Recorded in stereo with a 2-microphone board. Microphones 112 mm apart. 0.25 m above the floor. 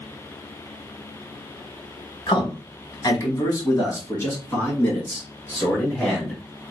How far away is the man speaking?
About 1.3 m.